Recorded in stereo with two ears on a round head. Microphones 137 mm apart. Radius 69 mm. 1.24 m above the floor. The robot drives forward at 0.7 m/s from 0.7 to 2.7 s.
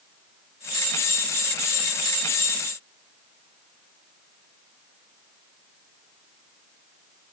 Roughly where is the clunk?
No clunk in this recording.